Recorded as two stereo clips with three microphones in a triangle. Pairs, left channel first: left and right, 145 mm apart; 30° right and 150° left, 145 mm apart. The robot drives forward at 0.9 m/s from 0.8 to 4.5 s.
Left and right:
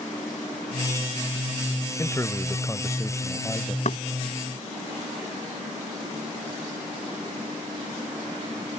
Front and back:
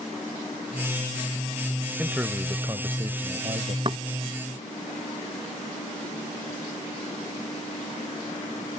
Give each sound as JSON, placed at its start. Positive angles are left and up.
{"t": 2.0, "sound": "a man speaking", "azimuth_deg": 80}
{"t": 3.9, "sound": "knocking", "azimuth_deg": 105}